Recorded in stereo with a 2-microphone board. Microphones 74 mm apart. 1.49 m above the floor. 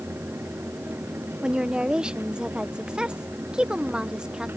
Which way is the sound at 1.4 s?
10° right (ahead or behind).